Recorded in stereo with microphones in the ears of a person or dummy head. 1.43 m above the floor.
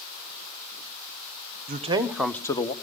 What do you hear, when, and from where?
1.7 s a man speaking: 35° right (ahead or behind), 1.0 m; by 2.7 s 30° left (ahead or behind), 1.2 m